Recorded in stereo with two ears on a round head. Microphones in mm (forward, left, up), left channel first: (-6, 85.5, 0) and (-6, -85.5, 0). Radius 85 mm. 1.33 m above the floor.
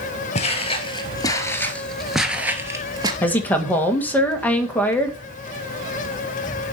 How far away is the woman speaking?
About 1.8 m.